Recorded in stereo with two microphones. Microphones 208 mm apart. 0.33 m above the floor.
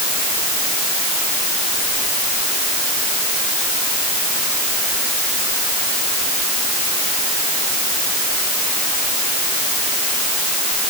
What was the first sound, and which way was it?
Only background noise.